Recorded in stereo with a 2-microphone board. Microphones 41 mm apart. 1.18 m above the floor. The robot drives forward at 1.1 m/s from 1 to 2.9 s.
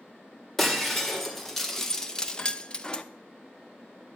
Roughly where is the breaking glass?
Centre.